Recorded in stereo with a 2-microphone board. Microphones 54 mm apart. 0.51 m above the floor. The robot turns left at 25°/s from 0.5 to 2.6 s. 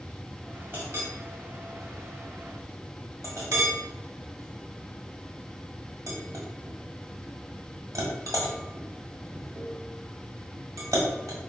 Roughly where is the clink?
Right.